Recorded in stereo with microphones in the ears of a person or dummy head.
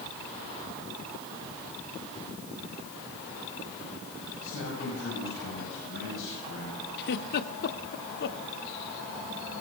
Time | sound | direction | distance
4.4 | a man speaking | 75° left (ahead or behind) | 9 m
7.0 | a giggle | 60° left (ahead or behind) | 1.3 m